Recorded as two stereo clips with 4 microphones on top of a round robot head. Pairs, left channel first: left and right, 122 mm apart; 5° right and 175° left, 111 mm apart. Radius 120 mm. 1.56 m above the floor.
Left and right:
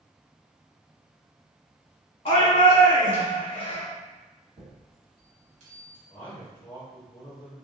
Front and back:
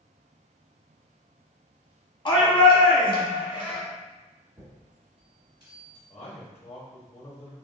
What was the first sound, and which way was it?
A shout, 40° left.